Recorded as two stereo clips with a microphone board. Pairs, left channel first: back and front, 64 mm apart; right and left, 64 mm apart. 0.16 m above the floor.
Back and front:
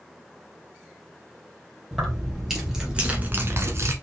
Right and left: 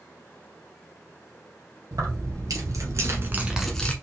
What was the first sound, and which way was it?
Keys jangling, 90° left.